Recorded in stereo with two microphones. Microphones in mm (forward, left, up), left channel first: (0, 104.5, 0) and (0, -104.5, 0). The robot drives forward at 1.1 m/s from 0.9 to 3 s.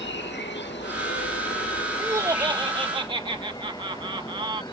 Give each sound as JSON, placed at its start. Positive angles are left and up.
{"t": 0.0, "sound": "an insect", "side_deg": 65}
{"t": 2.0, "sound": "laughter", "side_deg": -15}